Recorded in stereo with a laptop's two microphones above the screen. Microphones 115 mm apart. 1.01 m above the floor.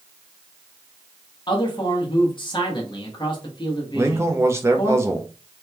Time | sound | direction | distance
1.5 | a man speaking | 40° left (ahead or behind) | 1.0 m
3.9 | a man speaking | 20° right (ahead or behind) | 0.7 m